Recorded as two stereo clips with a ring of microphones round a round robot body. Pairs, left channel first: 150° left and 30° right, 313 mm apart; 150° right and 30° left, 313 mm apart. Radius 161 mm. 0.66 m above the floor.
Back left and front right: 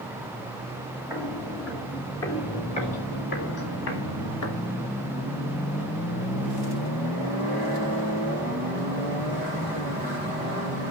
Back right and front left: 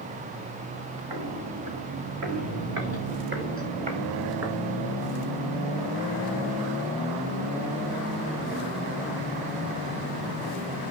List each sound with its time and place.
1.1 s footsteps: 55° left, 5 m; by 4.7 s 110° left, 4.5 m